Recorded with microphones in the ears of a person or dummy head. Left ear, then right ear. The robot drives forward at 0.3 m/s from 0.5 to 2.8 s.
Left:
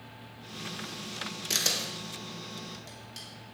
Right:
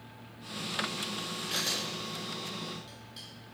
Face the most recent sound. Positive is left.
turn(degrees=55)  # may be behind; listen again after turning